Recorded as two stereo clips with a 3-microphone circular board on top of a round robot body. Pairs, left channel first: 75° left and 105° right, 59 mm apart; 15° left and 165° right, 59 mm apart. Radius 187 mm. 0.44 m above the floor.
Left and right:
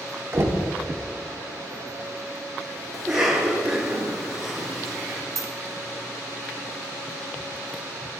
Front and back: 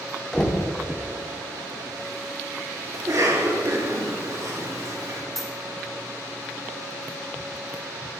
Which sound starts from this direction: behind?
A cough, at 2.9 s.